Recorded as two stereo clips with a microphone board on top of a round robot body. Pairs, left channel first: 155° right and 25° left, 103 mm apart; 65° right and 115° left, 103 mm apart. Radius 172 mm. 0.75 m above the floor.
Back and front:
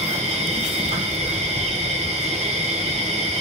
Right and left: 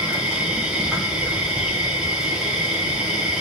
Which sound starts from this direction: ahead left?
An insect, at 0.0 s.